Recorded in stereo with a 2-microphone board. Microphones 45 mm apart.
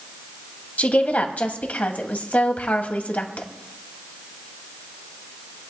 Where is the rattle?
I don't hear a rattle.